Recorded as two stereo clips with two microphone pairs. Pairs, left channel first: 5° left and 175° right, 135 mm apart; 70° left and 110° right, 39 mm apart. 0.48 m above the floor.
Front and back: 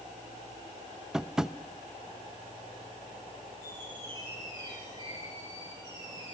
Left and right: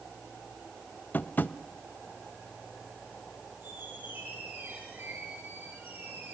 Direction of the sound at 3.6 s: 115° right.